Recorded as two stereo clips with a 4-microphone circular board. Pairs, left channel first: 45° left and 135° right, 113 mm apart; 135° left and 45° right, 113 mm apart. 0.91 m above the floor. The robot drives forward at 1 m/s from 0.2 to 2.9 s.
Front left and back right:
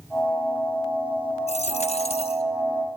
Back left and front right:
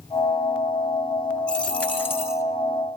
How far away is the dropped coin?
About 3 m.